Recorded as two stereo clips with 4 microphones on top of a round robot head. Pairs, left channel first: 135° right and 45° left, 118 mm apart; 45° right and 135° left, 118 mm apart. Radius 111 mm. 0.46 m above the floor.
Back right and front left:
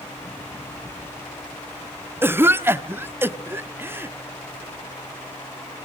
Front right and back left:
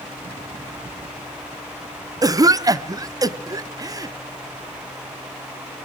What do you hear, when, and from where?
2.2 s a cough: 100° left, 1.0 m